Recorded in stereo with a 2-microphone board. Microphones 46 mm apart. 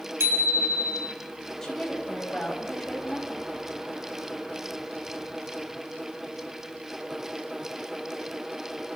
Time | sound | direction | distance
0.2 | a bicycle bell | 65° right (ahead or behind) | 5.5 m
1.6 | a woman speaking | 10° left (ahead or behind) | 6.5 m